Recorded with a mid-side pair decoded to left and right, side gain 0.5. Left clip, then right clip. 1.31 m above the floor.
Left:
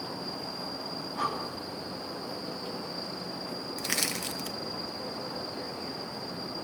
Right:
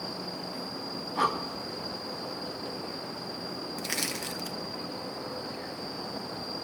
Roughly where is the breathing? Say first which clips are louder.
Right 5 dB; ahead right.